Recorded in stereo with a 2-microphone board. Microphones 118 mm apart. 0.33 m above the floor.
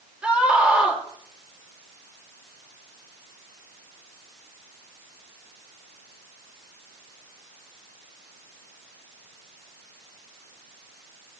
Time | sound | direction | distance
0.2 | a scream | 10° right (ahead or behind) | 7 m